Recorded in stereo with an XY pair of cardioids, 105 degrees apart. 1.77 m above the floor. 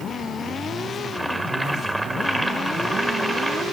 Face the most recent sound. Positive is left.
turn(degrees=0)